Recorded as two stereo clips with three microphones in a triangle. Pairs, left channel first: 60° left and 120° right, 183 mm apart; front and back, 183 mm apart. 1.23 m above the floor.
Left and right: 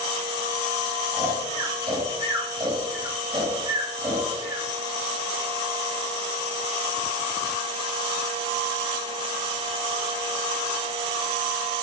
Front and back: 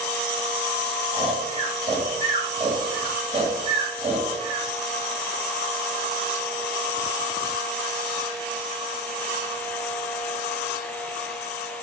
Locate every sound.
1.1 s snoring: 160° right, 1.2 m